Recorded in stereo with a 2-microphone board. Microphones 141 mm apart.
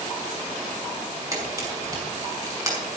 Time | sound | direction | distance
1.3 | a camera shutter | 25° right (ahead or behind) | 5.5 m